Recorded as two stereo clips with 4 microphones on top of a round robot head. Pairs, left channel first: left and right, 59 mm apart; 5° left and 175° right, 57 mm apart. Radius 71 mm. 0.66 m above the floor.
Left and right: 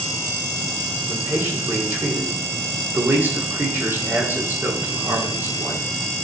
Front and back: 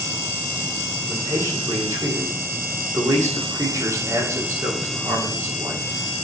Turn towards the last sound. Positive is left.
turn(degrees=-150)